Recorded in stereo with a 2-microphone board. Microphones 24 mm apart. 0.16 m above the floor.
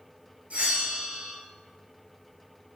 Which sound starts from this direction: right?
A bell, at 0.5 s.